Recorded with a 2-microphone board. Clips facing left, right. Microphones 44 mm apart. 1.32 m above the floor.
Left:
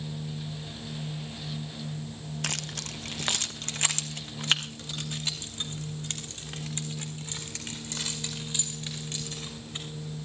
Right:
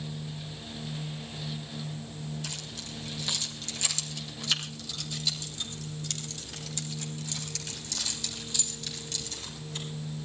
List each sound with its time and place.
2.4 s keys jangling: 70° left (ahead or behind), 0.6 m; by 9.8 s 35° left (ahead or behind), 5.5 m